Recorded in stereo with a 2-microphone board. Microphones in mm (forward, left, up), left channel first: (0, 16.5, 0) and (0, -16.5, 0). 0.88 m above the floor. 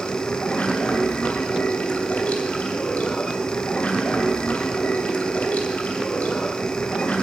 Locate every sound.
0.0 s running water: 45° left (ahead or behind), 2.5 m